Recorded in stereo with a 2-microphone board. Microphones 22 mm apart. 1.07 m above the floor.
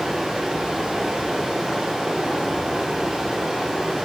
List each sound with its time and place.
0.0 s running water: 40° right (ahead or behind), 5.5 m